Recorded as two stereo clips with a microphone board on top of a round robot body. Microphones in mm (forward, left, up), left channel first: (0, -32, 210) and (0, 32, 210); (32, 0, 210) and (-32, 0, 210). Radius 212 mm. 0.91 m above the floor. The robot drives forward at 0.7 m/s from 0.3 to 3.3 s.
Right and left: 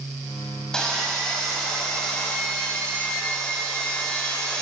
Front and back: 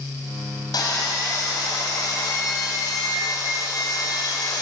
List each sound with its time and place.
0.7 s sawing: 10° right, 5.5 m; by 4.6 s 15° right, 3.5 m